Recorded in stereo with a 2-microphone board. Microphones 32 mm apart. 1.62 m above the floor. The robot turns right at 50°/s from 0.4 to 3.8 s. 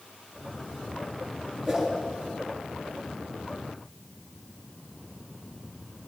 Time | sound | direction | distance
1.7 | a whoosh | centre (ahead or behind) | 7.5 m